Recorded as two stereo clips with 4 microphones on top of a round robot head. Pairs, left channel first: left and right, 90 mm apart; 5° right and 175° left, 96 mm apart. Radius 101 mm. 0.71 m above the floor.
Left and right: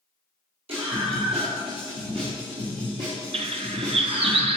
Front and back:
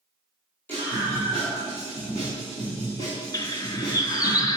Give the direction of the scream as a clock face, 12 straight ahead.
3 o'clock.